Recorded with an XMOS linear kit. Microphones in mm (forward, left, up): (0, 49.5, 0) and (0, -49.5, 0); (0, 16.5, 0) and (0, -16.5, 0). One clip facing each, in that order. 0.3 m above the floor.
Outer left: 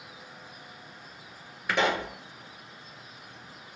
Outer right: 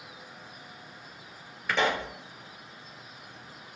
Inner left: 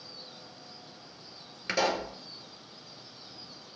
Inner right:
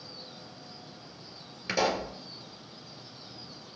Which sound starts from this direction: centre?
A pop, at 1.7 s.